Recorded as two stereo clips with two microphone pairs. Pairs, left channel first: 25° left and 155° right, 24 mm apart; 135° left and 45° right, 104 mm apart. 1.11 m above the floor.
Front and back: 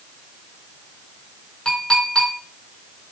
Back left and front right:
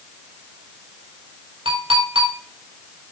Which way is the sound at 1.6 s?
25° right.